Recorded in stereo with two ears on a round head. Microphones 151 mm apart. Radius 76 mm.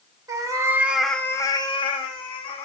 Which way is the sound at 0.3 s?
20° right (ahead or behind).